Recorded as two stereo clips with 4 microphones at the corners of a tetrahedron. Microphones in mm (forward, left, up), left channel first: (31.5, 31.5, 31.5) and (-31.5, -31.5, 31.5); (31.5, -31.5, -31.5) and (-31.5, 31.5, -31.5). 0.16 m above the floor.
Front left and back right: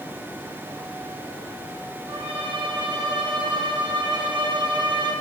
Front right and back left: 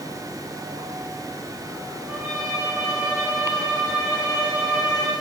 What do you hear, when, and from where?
2.1 s a violin: 140° right, 9.5 m